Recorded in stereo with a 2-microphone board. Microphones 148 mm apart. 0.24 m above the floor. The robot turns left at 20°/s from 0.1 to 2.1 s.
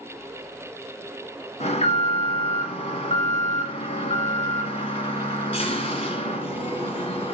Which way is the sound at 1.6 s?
50° left (ahead or behind).